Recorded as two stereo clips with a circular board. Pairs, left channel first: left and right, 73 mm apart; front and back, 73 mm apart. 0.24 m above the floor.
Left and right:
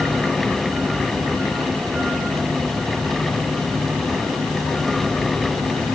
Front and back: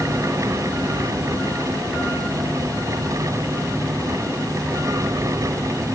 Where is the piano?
I don't hear a piano.